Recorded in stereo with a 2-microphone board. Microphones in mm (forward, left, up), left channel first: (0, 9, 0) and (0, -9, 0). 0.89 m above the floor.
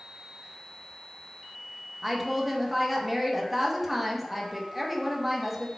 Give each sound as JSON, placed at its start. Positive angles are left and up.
{"t": 2.0, "sound": "a woman speaking", "side_deg": -10, "distance_m": 0.6}